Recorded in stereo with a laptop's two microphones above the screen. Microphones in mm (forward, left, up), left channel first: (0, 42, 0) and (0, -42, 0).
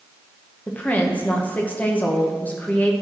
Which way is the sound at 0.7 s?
20° left (ahead or behind).